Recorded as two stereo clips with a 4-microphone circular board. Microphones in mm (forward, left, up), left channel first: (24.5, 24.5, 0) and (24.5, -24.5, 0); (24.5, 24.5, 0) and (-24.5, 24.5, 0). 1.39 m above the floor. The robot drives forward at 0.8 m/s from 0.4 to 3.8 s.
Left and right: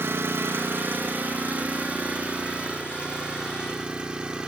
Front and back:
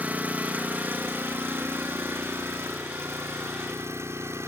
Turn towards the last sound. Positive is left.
turn(degrees=-160)